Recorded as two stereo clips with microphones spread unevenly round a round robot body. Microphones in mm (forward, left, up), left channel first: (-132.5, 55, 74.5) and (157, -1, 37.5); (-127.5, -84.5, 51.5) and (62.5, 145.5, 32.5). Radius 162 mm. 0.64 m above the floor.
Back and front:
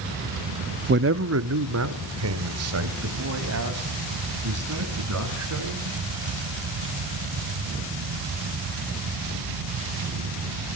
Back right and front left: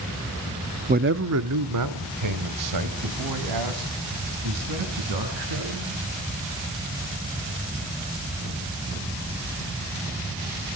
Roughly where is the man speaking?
Ahead.